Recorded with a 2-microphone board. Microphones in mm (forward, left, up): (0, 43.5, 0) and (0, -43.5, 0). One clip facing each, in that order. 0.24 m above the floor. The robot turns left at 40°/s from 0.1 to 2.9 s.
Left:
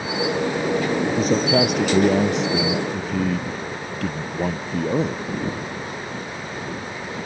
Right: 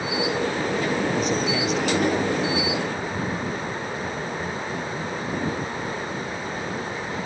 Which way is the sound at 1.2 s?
145° left.